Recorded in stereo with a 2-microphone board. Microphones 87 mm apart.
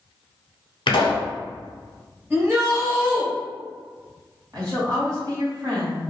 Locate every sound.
0.9 s a pop: 80° left, 0.7 m
2.3 s a shout: 25° right (ahead or behind), 1.7 m
4.5 s a woman speaking: 45° right (ahead or behind), 1.6 m